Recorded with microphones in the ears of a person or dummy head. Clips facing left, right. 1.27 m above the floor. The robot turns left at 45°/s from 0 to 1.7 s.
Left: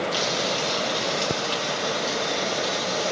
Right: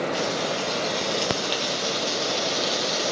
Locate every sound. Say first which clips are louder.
0.1 s frying: even; 45° left, 1.3 m; by 3.1 s 25° right, 1.3 m